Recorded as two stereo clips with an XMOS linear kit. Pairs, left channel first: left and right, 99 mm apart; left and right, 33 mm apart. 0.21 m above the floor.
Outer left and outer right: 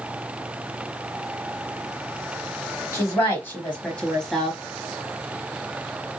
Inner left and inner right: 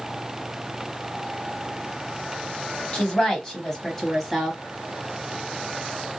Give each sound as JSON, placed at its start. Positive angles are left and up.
{"t": 2.9, "sound": "a woman speaking", "side_deg": 30, "distance_m": 1.2}